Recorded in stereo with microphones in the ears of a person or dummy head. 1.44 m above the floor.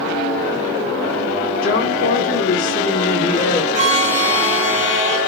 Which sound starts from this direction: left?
A woman speaking, at 1.6 s.